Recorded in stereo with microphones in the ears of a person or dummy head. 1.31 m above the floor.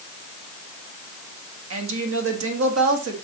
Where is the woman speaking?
80° right, 1.8 m.